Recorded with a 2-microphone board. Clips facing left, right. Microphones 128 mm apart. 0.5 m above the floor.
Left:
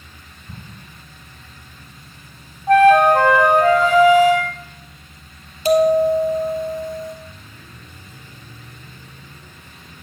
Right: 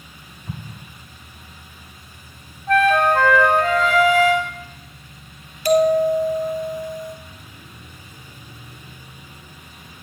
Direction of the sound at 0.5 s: 75° right (ahead or behind).